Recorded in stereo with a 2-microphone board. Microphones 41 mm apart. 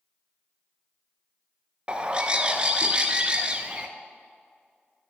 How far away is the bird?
About 0.6 m.